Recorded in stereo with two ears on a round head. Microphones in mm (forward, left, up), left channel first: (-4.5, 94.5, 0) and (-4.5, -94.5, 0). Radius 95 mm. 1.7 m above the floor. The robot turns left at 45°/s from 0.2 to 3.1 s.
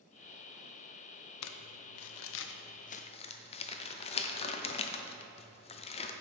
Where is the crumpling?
75° left (ahead or behind), 0.5 m; by 6.1 s 30° left (ahead or behind), 0.5 m.